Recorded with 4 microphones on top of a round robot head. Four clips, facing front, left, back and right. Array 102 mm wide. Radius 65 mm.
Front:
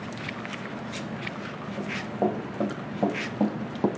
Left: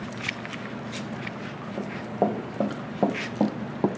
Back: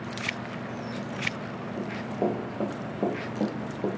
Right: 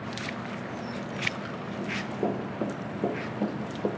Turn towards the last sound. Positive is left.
turn(degrees=70)